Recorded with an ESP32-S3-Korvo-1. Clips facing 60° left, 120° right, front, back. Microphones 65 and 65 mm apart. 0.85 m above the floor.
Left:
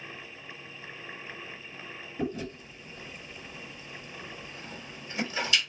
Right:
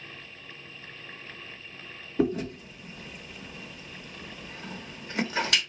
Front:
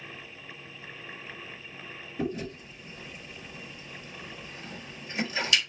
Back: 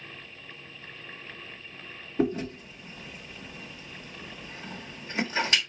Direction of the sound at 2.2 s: 135° right.